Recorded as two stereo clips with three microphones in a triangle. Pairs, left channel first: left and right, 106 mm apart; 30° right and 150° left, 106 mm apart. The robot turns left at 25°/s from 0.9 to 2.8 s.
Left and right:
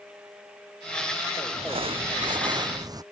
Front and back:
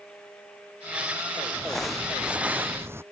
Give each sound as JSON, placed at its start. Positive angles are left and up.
{"t": 1.5, "sound": "crumpling", "azimuth_deg": -110}